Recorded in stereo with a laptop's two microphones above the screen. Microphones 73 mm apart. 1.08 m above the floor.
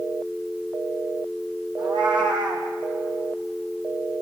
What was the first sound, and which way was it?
A cat meowing, 80° right.